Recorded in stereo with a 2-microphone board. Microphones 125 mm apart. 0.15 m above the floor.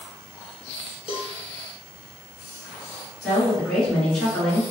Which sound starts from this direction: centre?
A woman speaking, at 3.2 s.